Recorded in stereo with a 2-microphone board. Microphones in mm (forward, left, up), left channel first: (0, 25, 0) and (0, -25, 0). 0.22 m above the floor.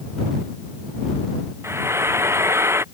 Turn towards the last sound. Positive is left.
turn(degrees=-55)  # may be behind; listen again after turning